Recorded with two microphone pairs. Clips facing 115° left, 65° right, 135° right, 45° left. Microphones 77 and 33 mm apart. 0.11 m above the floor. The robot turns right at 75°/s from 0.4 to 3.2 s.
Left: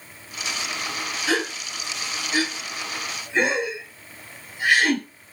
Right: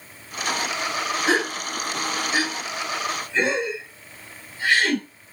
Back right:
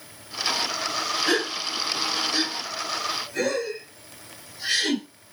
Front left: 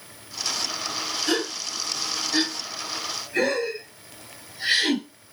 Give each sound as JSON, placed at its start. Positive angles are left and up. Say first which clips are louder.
{"t": 1.3, "sound": "a gasp", "louder": "right 1 dB, even", "azimuth_deg": -90, "distance_m": 1.3}